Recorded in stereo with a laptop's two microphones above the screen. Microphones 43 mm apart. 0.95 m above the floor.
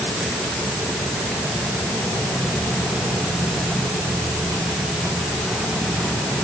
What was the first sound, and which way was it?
Only background noise.